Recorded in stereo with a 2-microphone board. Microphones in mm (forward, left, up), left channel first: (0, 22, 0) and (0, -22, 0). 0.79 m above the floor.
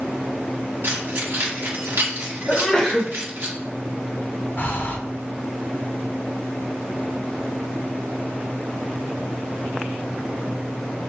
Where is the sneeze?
25° left (ahead or behind), 0.7 m.